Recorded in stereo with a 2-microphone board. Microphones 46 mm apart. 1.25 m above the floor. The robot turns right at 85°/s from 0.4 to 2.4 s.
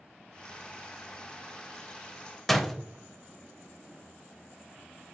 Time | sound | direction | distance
2.5 | a door slam | 5° left (ahead or behind) | 0.6 m